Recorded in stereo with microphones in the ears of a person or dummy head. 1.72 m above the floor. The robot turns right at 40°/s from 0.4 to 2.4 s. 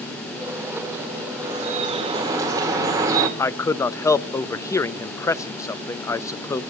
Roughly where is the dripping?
Ahead right.